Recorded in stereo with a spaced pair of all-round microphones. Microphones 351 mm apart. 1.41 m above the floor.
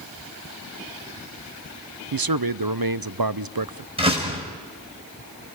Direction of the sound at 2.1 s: 75° right (ahead or behind).